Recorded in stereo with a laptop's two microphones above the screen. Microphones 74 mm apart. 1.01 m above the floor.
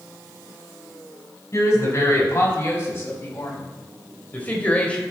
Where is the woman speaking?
35° left (ahead or behind), 6 m; by 5.0 s 15° left (ahead or behind), 3.5 m.